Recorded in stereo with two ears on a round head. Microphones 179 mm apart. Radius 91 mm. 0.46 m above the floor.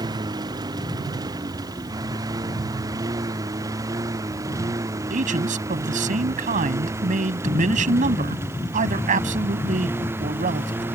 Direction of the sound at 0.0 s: 20° right (ahead or behind).